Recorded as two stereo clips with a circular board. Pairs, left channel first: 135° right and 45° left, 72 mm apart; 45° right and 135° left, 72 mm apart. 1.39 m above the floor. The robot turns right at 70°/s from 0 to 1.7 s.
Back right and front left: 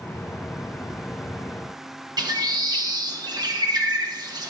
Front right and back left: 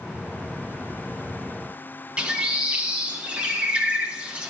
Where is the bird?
60° left, 0.9 m.